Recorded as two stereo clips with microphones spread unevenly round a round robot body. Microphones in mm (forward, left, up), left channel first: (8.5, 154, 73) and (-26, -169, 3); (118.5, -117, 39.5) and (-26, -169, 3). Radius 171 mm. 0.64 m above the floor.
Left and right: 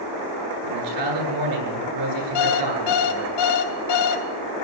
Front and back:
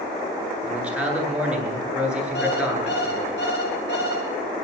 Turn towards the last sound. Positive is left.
turn(degrees=70)